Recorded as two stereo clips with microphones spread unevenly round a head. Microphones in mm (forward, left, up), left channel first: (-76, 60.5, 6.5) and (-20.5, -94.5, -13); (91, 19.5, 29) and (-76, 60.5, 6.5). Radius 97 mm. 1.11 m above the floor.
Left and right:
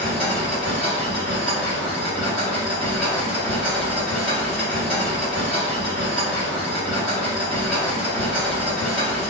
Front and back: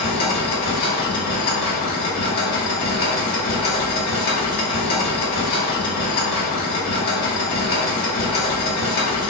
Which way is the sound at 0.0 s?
20° left.